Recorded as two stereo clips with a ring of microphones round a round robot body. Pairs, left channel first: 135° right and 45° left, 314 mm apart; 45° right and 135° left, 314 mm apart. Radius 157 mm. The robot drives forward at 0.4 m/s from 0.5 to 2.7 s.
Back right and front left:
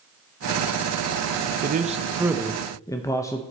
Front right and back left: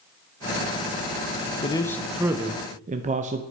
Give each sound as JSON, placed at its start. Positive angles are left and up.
{"t": 1.6, "sound": "a man speaking", "azimuth_deg": 15, "distance_m": 0.5}